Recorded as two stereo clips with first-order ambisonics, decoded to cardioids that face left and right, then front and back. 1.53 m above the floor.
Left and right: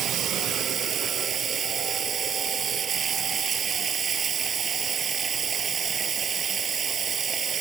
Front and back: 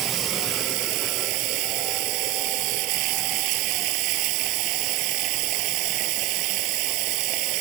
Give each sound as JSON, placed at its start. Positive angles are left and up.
{"t": 0.0, "sound": "running water", "azimuth_deg": -155}